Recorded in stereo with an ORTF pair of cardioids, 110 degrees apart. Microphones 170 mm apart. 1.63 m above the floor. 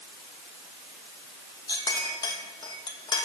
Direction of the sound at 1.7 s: 25° left.